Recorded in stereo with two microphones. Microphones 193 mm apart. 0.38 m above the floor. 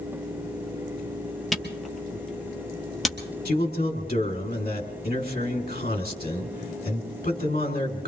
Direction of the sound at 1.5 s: Centre (ahead or behind).